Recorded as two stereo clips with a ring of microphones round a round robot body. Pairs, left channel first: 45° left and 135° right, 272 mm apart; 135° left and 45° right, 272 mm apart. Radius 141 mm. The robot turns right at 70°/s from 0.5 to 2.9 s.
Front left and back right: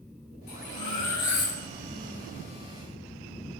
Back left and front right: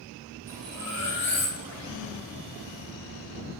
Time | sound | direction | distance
0.5 | cutlery clinking | 15° left | 3.5 m